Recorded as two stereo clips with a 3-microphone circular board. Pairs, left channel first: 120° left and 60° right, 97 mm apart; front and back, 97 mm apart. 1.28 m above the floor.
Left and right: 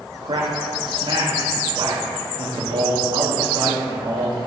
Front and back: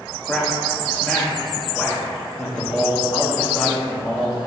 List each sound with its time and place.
0.2 s a man speaking: 75° right, 2 m